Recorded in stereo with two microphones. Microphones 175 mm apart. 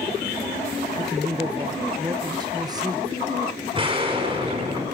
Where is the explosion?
30° right (ahead or behind), 4.5 m.